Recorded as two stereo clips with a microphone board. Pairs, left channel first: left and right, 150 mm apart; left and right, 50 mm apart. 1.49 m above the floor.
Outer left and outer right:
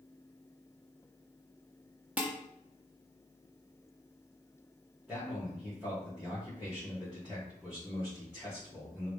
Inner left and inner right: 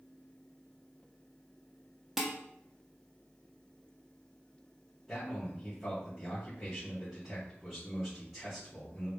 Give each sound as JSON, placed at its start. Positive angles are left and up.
{"t": 2.2, "sound": "dishes clattering", "side_deg": -10, "distance_m": 1.5}
{"t": 5.1, "sound": "a man speaking", "side_deg": -5, "distance_m": 3.5}